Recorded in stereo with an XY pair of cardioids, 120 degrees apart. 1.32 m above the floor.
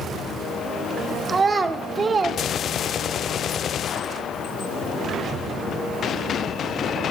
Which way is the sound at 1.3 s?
30° right.